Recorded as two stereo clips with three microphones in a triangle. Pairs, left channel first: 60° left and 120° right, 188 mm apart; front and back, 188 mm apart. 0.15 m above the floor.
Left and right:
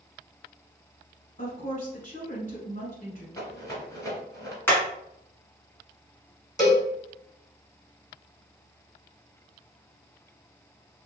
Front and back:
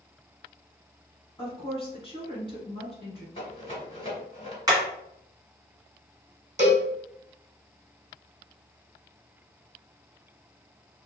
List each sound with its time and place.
1.4 s a woman speaking: 50° left, 1.4 m
3.4 s a rattle: 15° left, 1.2 m
4.7 s hammering: 130° left, 1.4 m
6.6 s a cowbell: 130° left, 2.0 m